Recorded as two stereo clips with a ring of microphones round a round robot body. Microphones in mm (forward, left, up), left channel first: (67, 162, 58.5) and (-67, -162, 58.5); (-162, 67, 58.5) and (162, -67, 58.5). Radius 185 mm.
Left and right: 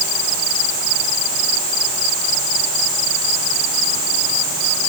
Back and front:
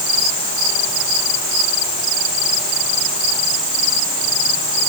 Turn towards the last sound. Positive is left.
No sound to turn to.